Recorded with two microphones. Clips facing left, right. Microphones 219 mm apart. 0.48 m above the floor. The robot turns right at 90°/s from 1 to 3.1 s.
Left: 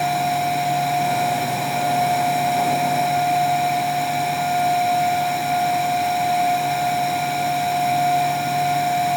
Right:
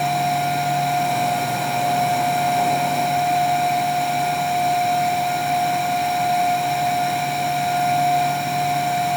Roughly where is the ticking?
No ticking in this recording.